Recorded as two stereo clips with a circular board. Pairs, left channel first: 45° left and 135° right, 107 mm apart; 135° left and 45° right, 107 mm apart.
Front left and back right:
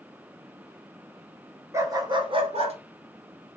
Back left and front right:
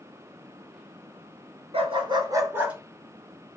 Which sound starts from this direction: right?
A dog barking, at 1.7 s.